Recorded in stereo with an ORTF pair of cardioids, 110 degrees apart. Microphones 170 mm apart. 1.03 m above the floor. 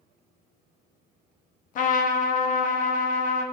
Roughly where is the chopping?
No chopping in this recording.